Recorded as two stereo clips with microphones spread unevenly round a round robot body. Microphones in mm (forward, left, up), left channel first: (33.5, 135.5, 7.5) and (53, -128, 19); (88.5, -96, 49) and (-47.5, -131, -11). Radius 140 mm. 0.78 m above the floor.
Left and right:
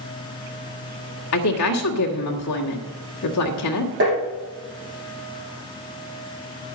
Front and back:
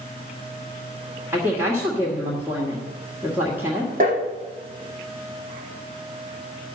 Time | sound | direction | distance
1.3 | a woman speaking | 125° left | 1.7 m
4.0 | tapping | 140° right | 6 m